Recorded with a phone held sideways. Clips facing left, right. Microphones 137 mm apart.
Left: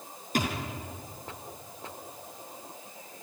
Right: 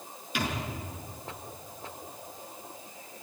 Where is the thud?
45° left (ahead or behind), 5 m.